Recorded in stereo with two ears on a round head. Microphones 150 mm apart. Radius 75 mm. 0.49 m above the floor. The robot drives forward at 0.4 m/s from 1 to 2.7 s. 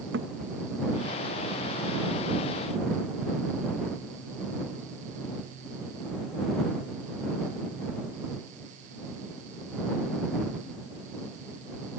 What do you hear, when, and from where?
0.1 s a thud: 80° right